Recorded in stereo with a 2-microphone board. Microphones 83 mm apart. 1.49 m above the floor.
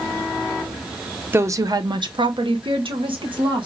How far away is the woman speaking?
About 0.7 m.